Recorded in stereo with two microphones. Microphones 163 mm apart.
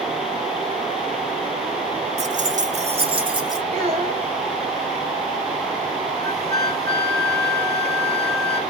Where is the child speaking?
40° right (ahead or behind), 1.8 m.